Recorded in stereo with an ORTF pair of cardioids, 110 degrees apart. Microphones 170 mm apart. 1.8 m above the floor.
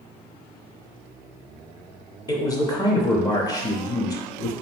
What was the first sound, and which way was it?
A man speaking, 20° left.